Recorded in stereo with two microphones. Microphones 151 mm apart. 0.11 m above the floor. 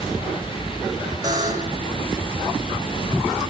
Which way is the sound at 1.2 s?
25° right (ahead or behind).